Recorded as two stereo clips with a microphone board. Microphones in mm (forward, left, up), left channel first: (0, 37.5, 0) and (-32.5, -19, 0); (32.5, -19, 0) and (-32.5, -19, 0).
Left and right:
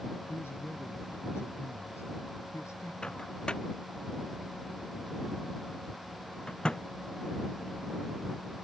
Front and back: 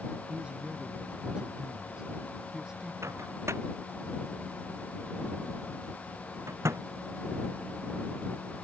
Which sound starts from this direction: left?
A man speaking, at 0.3 s.